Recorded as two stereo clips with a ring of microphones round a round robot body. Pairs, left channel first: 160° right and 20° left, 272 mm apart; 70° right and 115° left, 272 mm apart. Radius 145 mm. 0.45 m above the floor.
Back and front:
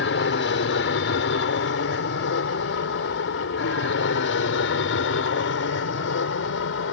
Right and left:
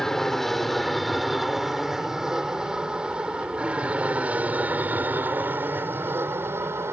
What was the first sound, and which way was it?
An aircraft, 155° right.